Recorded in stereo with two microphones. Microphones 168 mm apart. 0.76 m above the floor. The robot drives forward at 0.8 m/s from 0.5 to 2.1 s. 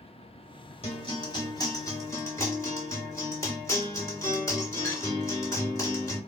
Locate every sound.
0.8 s a guitar: 35° left (ahead or behind), 0.8 m; by 6.2 s 20° left (ahead or behind), 1.7 m